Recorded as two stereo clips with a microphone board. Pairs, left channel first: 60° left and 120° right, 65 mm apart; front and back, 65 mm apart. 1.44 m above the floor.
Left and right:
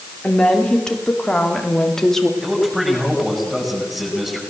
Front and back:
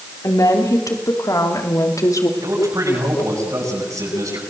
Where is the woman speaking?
15° right, 4 m; by 2.3 s 25° right, 3 m.